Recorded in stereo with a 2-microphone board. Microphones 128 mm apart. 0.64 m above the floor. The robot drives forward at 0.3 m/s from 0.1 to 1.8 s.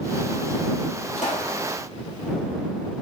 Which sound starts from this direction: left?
A pop, at 1.2 s.